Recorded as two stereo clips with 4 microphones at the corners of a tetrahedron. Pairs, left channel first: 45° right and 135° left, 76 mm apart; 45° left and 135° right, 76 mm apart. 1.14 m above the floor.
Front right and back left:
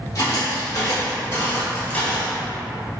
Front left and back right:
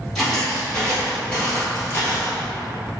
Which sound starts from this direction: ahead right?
Footsteps, at 0.1 s.